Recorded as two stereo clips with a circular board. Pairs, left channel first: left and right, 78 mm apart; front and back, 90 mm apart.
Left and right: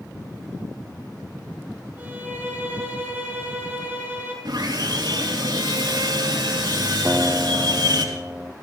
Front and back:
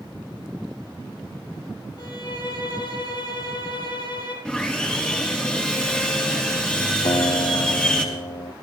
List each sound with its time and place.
2.0 s a violin: 25° right, 5.5 m
4.5 s sawing: 80° right, 3.5 m
7.0 s a guitar: 25° right, 0.9 m